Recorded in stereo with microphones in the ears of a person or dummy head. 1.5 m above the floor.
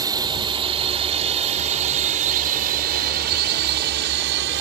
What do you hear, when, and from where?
0.0 s a drone: 20° right (ahead or behind); by 4.6 s 65° right (ahead or behind)